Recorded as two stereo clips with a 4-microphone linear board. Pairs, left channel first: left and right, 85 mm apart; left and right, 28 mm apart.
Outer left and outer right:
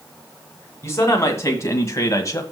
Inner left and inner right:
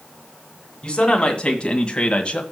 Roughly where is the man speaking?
Left.